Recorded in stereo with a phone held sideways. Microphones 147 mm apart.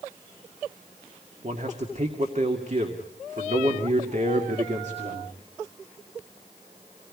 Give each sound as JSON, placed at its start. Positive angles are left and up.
{"t": 1.4, "sound": "a man speaking", "side_deg": -55, "distance_m": 2.0}